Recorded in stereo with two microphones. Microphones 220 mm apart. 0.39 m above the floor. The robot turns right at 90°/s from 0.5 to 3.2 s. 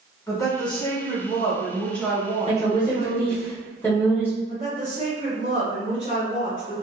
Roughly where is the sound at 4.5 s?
Right.